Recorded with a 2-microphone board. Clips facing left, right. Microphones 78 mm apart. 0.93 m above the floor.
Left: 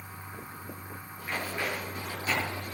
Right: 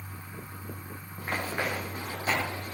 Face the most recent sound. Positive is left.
turn(degrees=-45)  # may be behind; listen again after turning